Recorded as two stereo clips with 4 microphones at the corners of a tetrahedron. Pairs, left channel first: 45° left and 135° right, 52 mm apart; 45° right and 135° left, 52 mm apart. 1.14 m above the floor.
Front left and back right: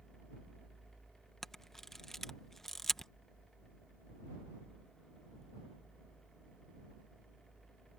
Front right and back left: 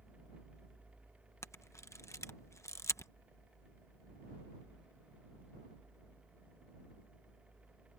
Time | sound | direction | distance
1.4 | a camera shutter | 35° right | ?